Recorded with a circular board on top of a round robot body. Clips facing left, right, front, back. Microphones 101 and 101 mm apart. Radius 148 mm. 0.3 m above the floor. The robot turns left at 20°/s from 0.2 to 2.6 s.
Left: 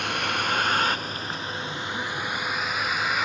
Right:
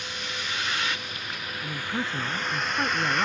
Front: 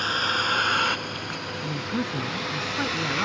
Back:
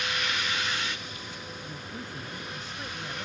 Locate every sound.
0.0 s a vehicle: 55° left; by 3.3 s 5° left
1.6 s a man speaking: 10° right; by 3.3 s 30° right